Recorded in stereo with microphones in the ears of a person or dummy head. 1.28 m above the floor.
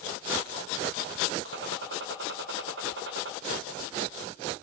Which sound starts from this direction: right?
A gunshot, at 1.4 s.